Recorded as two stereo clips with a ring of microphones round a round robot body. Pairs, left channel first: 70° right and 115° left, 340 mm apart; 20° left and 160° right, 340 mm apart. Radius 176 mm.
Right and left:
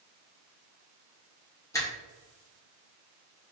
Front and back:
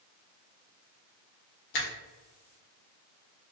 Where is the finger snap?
15° left, 1.1 m.